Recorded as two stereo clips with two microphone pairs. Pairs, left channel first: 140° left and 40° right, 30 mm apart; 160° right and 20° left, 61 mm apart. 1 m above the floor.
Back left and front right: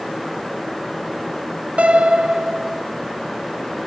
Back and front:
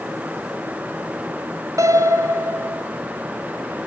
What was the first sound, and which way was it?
A piano, straight ahead.